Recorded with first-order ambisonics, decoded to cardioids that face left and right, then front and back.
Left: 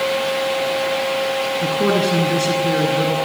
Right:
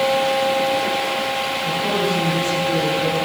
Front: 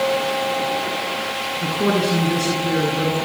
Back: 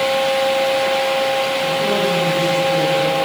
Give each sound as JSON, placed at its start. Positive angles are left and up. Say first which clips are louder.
{"t": 1.6, "sound": "a man speaking", "louder": "left 4 dB, back 3 dB", "azimuth_deg": 60, "distance_m": 8.0}